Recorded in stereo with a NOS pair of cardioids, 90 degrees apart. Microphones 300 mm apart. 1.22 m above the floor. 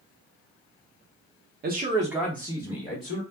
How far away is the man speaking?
About 0.6 m.